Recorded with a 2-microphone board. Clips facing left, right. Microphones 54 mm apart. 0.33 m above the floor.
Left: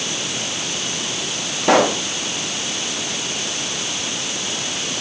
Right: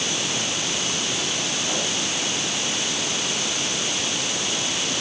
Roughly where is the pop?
Left.